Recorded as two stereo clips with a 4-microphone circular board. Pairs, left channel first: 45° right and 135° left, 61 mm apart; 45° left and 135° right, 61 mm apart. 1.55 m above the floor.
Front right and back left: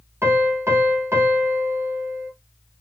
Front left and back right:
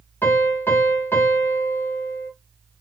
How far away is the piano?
About 1.1 m.